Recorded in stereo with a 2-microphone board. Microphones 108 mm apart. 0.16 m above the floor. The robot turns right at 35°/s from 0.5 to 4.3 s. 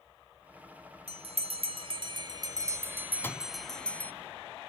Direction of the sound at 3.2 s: 20° left (ahead or behind).